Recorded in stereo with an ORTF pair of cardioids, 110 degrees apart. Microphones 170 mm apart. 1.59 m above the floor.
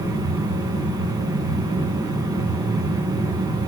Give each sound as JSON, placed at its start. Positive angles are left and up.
{"t": 0.0, "sound": "a machine running", "azimuth_deg": -20, "distance_m": 6.0}